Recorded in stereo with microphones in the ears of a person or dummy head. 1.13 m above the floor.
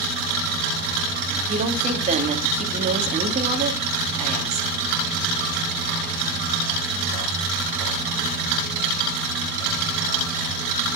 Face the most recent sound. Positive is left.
turn(degrees=-40)  # may be behind; listen again after turning